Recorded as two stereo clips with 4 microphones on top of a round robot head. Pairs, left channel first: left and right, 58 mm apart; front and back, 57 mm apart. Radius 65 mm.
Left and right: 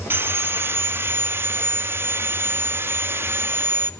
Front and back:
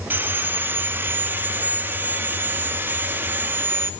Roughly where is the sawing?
Behind right.